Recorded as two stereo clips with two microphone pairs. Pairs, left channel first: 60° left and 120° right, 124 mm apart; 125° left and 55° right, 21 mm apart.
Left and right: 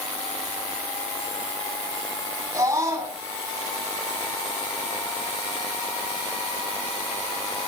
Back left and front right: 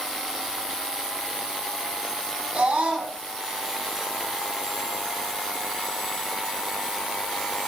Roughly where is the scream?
Ahead right.